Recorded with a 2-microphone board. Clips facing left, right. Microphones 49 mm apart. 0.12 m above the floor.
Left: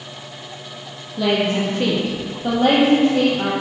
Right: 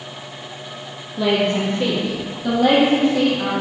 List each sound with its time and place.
1.2 s a woman speaking: 5° left (ahead or behind), 3 m; by 3.5 s 50° left (ahead or behind), 5 m